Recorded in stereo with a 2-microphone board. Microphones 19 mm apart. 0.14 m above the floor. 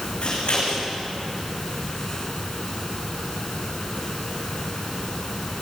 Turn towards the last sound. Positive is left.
turn(degrees=60)  # may be behind; listen again after turning